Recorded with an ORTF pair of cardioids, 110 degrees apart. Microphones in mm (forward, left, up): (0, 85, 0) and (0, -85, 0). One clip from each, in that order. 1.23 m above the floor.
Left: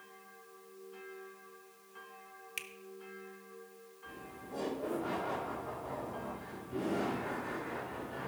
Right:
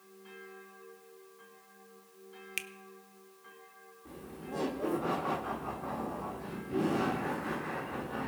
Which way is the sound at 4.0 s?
55° right.